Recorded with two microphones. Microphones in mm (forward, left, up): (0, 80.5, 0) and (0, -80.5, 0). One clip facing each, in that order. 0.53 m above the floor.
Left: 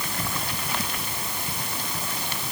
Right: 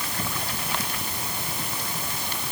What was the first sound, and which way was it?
Only background noise.